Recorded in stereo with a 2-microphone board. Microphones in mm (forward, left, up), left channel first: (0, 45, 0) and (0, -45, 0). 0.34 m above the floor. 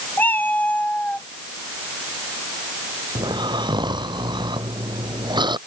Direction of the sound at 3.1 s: 55° right (ahead or behind).